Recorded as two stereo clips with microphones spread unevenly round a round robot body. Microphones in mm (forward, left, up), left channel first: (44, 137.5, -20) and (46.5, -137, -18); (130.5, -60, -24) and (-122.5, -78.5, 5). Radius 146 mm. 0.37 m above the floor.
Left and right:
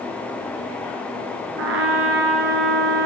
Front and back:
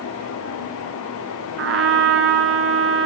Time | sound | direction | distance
1.6 | a trumpet | 140° right | 2.0 m